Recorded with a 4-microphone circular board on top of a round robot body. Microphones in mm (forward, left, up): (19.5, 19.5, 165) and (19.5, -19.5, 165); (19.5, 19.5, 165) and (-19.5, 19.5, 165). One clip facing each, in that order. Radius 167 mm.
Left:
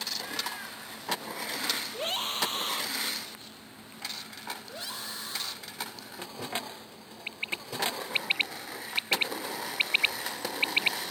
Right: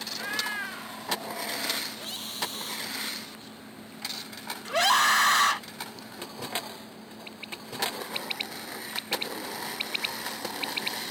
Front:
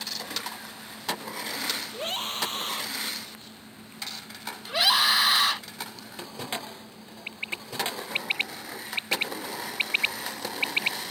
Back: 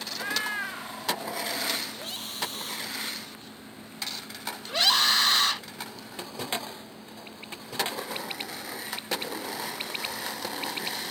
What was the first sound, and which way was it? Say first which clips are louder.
A cat meowing: right 8 dB, back 10 dB; 145° right.